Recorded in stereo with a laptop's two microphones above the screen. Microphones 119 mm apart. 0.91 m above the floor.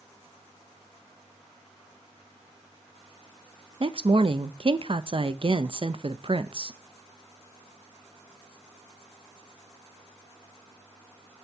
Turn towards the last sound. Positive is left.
turn(degrees=-45)  # may be behind; listen again after turning